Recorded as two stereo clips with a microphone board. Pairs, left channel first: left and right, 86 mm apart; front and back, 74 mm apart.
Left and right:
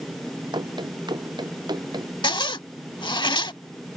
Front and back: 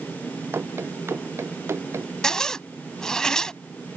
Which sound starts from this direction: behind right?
Running footsteps, at 0.5 s.